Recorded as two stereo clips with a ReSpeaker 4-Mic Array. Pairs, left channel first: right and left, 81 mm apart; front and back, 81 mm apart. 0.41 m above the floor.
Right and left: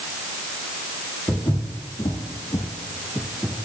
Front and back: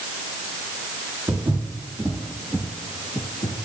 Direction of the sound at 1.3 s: 130° right.